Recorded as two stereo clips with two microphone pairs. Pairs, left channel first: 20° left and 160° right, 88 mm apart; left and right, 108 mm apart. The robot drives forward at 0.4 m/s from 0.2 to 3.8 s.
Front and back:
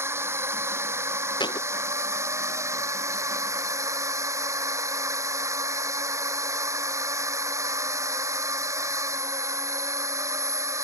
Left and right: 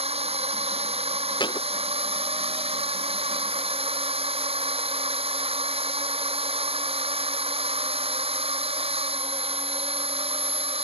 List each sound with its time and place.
0.0 s a drone: 105° right; by 10.8 s 110° right
1.4 s a thud: 45° left